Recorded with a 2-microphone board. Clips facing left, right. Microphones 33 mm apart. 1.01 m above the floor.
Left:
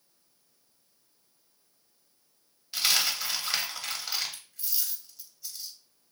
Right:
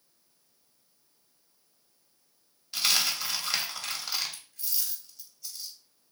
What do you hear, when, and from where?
2.7 s a dropped coin: 5° left (ahead or behind), 0.9 m